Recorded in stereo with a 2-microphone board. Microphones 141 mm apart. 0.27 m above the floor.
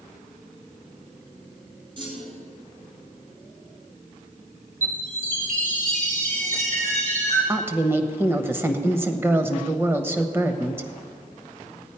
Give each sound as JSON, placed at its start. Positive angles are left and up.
{"t": 2.0, "sound": "a clunk", "side_deg": -35, "distance_m": 2.0}
{"t": 4.8, "sound": "a chime", "side_deg": -65, "distance_m": 4.0}
{"t": 7.5, "sound": "a woman speaking", "side_deg": -15, "distance_m": 1.0}